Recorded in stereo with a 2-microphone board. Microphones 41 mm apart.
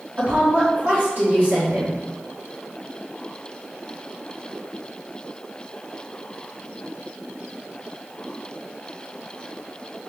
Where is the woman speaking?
45° right (ahead or behind), 1.4 m.